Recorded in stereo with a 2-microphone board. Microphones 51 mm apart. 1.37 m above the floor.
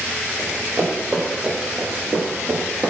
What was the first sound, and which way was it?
Running footsteps, 20° right (ahead or behind).